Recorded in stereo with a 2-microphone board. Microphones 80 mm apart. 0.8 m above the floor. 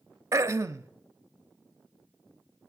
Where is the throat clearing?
35° right (ahead or behind), 0.6 m.